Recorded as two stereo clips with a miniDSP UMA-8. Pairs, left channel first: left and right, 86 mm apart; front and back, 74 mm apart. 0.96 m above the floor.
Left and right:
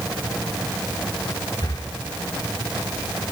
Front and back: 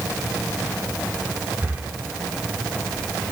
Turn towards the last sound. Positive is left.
turn(degrees=115)